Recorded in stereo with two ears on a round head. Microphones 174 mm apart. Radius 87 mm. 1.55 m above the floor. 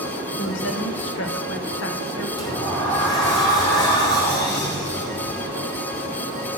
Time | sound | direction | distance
0.4 | a woman speaking | 70° left (ahead or behind) | 1.9 m
2.4 | a sliding door | 20° left (ahead or behind) | 3 m